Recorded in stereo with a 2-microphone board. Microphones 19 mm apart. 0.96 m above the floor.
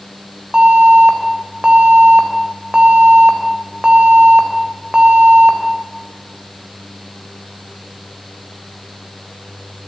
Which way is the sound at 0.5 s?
65° right (ahead or behind).